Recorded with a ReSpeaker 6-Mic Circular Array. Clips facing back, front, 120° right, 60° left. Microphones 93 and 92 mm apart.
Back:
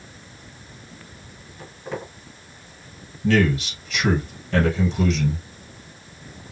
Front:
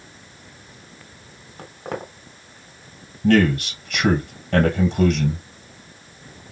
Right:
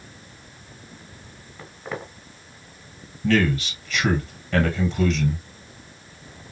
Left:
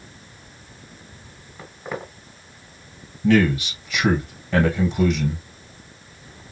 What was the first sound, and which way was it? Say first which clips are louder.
Footsteps: front 2 dB, left 2 dB; 25° right.